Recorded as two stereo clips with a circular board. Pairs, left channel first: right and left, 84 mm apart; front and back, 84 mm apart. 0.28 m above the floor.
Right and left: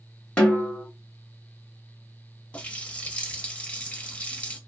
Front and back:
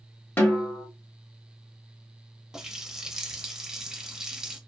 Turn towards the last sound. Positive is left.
turn(degrees=-115)